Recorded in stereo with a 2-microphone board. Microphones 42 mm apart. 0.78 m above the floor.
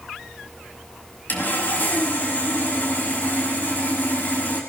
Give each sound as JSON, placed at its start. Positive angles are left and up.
{"t": 1.3, "sound": "sawing", "side_deg": 45, "distance_m": 5.5}